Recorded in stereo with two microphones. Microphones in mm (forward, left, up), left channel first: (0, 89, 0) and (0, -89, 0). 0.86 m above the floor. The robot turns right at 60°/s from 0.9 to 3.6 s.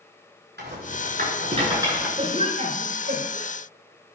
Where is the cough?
30° right (ahead or behind), 5.5 m; by 3.5 s 70° right (ahead or behind), 5.5 m.